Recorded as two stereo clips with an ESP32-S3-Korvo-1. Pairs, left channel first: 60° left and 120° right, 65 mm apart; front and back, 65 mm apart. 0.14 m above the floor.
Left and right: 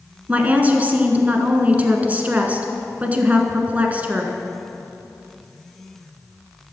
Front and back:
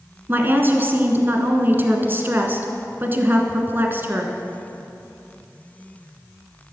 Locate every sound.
0.3 s a woman speaking: 165° right, 1.2 m